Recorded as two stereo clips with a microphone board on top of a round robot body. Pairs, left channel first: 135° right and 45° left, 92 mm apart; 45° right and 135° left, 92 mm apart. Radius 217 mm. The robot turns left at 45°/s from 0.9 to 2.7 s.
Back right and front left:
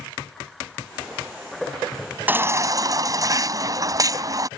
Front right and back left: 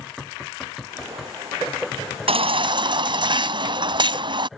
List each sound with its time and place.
2.3 s a baby crying: 115° left; by 4.5 s 95° left